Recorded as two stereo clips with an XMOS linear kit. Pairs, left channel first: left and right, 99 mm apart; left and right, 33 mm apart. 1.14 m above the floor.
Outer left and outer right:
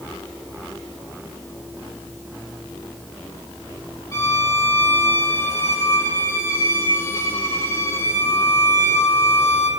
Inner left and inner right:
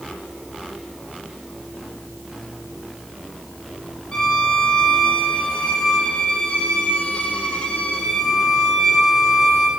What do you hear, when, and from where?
4.1 s a violin: 30° left (ahead or behind), 4 m